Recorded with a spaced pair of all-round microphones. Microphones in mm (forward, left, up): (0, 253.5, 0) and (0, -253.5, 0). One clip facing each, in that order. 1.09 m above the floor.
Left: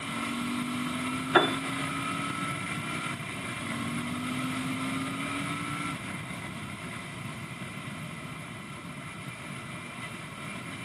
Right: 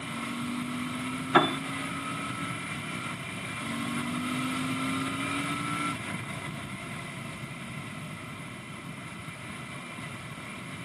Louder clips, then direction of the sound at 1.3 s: Even; 25° right (ahead or behind).